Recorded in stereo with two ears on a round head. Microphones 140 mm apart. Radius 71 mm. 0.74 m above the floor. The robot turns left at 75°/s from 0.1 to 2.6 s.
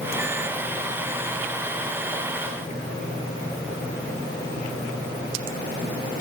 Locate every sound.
Only background noise.